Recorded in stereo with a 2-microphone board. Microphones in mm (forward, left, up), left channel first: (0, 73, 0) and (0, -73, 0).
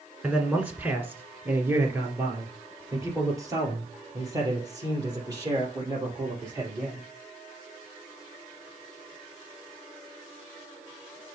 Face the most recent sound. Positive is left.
turn(degrees=-25)  # may be behind; listen again after turning